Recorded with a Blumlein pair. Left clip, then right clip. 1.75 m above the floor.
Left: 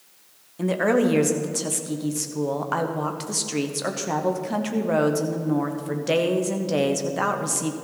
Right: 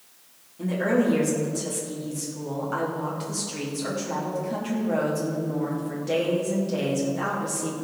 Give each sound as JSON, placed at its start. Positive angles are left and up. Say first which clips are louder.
{"t": 0.6, "sound": "a woman speaking", "louder": "left 3 dB", "azimuth_deg": 60, "distance_m": 1.2}